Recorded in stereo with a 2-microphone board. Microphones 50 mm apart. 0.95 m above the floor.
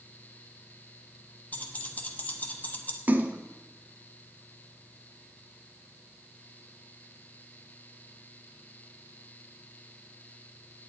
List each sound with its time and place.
1.5 s keys jangling: 35° left (ahead or behind), 1.1 m
3.1 s a splash: 40° right (ahead or behind), 0.8 m